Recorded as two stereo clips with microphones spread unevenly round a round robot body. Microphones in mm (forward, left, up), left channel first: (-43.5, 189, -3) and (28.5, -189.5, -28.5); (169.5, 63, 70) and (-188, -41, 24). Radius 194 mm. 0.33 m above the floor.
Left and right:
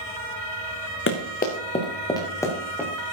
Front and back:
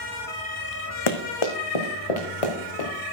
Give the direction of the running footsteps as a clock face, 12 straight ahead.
11 o'clock.